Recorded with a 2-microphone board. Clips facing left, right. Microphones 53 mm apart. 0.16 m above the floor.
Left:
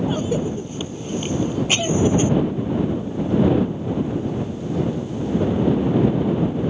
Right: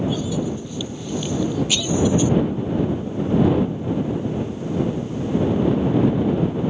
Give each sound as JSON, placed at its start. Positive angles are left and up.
{"t": 0.1, "sound": "a cough", "side_deg": 40}